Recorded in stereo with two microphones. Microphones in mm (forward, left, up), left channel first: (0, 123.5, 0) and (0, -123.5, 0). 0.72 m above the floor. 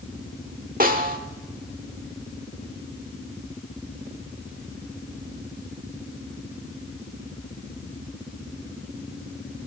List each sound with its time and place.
0.8 s a snare drum: 35° right (ahead or behind), 1.5 m